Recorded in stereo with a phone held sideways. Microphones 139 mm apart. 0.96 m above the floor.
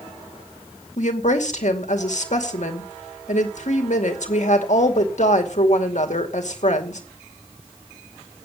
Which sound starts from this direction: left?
A woman speaking, at 1.0 s.